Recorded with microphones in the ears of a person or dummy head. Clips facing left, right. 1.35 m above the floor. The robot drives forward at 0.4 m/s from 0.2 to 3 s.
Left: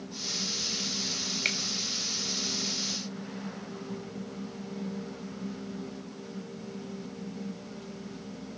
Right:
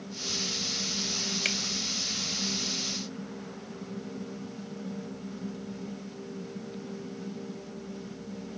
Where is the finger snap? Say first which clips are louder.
Right 2 dB; 10° right (ahead or behind), 1.5 m.